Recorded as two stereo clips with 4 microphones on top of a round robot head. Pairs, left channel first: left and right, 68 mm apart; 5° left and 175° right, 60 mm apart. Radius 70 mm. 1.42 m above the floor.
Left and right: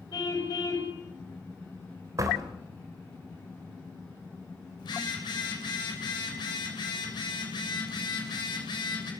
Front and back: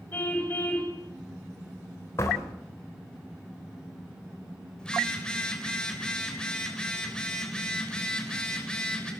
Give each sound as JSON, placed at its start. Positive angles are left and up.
{"t": 0.1, "sound": "a car horn", "azimuth_deg": 60, "distance_m": 5.0}
{"t": 2.2, "sound": "a door slam", "azimuth_deg": -50, "distance_m": 3.5}
{"t": 4.8, "sound": "a phone buzzing", "azimuth_deg": 80, "distance_m": 6.5}